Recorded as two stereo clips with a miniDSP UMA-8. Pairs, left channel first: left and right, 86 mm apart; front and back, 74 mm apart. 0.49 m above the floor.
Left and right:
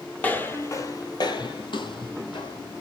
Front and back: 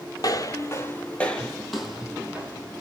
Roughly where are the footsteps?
Ahead.